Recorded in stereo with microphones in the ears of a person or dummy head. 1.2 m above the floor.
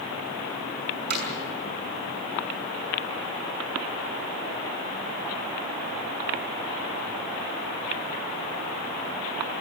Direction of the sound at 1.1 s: 55° right (ahead or behind).